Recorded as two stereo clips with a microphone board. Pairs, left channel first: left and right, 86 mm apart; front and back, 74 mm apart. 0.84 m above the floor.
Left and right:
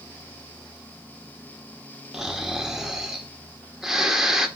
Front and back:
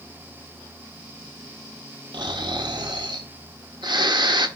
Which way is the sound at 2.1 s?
175° right.